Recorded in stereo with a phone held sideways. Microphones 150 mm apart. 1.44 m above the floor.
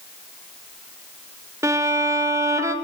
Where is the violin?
20° right (ahead or behind), 3.5 m.